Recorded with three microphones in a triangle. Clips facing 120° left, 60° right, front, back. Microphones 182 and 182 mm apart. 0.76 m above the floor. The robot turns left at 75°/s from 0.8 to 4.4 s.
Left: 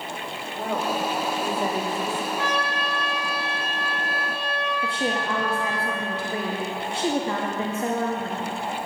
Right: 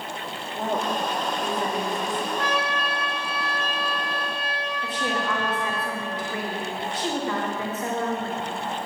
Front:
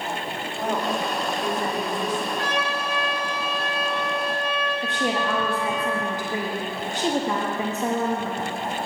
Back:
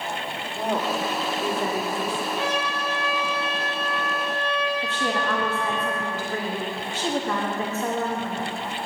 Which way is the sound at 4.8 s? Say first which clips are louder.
Right 1 dB, front 1 dB; 70° left.